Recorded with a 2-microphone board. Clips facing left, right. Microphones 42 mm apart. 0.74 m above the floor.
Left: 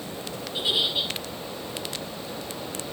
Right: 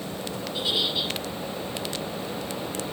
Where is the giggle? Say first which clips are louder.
Left 2 dB; 20° left (ahead or behind), 6 m.